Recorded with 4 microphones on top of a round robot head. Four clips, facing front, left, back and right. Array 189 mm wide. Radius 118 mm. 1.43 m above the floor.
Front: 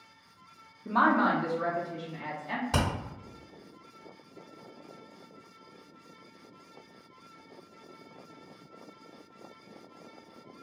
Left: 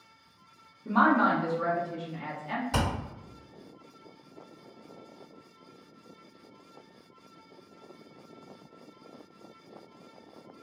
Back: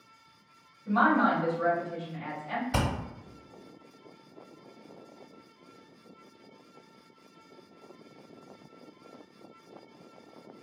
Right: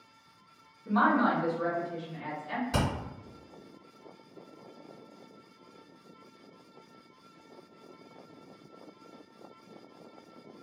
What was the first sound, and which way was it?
A woman speaking, 30° left.